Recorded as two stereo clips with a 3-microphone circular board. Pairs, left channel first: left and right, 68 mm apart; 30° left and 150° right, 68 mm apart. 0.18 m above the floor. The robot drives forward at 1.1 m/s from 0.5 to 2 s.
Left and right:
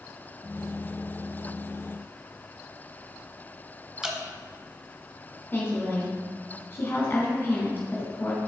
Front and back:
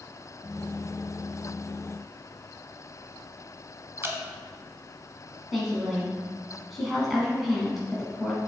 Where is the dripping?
160° right, 1.1 m.